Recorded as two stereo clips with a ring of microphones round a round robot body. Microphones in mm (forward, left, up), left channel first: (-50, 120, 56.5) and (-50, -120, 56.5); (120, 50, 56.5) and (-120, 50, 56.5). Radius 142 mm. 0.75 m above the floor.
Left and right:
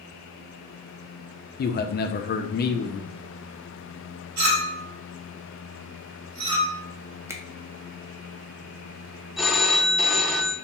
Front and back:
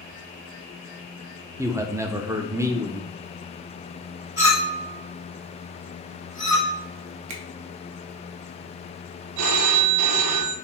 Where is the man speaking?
105° left, 0.5 m.